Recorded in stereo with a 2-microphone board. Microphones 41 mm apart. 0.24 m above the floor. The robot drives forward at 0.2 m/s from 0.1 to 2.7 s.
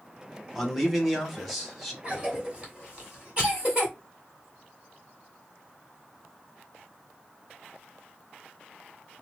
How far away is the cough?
About 1.9 m.